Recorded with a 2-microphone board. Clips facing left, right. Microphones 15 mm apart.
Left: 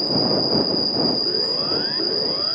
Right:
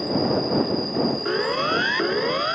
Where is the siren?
60° right (ahead or behind); by 2.5 s 55° right (ahead or behind).